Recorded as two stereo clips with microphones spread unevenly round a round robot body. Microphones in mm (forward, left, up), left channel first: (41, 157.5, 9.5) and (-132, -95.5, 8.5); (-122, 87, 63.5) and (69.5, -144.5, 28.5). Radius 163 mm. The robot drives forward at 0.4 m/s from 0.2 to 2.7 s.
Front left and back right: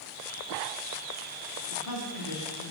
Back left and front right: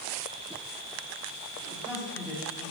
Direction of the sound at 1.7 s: 45° left.